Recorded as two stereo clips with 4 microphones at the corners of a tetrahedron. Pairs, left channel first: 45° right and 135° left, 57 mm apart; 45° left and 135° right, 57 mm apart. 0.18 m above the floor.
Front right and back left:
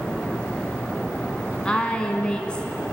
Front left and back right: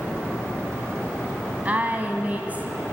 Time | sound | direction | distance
1.6 | a woman speaking | 105° right | 1.4 m